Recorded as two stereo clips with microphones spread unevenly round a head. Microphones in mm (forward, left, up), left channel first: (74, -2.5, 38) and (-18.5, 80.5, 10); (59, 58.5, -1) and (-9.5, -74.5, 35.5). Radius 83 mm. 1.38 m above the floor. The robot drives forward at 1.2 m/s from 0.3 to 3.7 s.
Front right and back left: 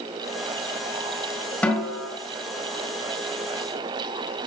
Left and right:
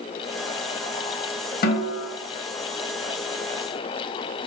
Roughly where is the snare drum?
Ahead left.